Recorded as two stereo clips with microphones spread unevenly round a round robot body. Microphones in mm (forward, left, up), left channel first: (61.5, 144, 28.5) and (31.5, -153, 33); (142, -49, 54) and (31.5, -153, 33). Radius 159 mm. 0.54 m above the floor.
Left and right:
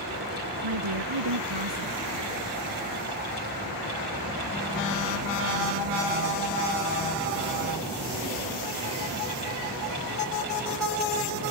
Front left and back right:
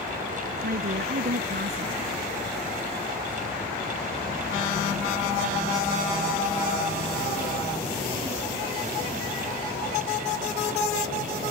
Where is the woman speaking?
120° right.